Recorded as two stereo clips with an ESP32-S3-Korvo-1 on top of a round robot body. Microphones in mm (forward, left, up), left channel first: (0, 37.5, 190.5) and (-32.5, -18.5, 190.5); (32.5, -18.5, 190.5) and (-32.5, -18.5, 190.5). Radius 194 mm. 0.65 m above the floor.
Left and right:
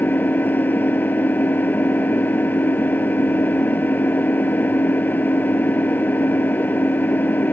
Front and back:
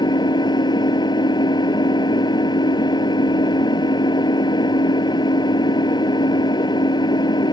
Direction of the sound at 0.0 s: 5° right.